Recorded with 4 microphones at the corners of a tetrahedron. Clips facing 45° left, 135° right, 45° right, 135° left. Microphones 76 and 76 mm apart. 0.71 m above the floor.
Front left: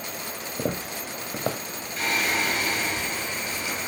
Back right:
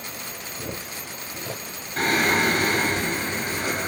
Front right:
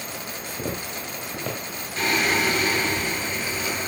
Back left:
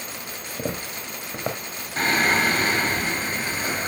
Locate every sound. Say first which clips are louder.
0.6 s footsteps: front left 7 dB, back left 1 dB; 65° left, 2 m
2.0 s singing: back right 5 dB, back left 2 dB; 175° right, 3.5 m